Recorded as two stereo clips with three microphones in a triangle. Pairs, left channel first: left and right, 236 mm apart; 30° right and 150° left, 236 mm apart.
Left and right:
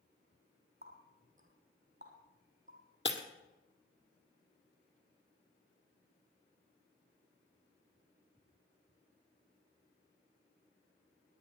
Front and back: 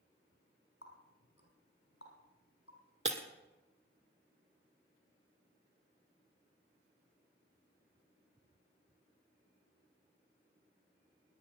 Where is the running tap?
35° right, 4 m.